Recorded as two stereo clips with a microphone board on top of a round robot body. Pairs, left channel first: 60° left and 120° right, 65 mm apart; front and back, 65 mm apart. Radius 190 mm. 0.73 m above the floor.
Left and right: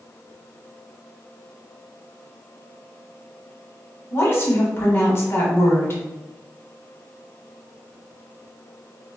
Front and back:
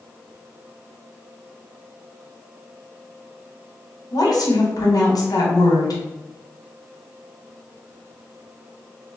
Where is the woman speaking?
10° left, 1.1 m.